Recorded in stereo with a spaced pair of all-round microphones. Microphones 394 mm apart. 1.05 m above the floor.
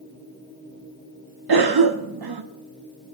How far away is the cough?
About 0.5 m.